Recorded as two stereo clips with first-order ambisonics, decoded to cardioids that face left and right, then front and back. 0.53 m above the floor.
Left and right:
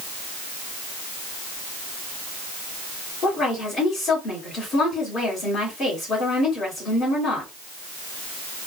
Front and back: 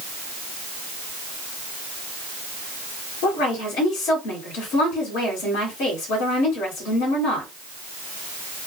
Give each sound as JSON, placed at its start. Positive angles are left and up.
{"t": 3.2, "sound": "a woman speaking", "azimuth_deg": 25, "distance_m": 1.8}